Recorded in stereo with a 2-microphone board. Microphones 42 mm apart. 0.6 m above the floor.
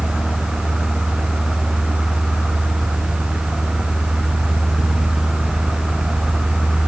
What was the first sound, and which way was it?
Only background noise.